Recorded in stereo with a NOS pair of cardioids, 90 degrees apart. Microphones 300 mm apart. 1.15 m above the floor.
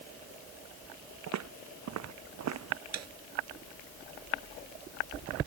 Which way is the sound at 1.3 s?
65° right.